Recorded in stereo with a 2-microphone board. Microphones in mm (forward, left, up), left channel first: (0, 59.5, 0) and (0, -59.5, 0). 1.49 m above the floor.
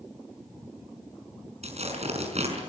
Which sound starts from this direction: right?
Tearing paper, at 1.6 s.